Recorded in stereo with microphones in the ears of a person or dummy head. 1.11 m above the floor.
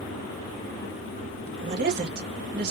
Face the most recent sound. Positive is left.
turn(degrees=-60)  # may be behind; listen again after turning